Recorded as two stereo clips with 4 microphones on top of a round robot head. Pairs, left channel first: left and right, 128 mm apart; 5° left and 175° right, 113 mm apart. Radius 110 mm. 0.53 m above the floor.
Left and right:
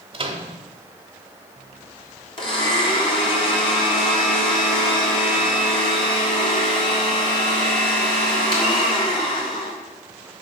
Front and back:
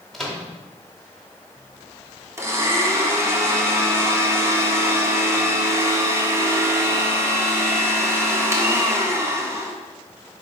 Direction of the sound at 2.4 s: 125° left.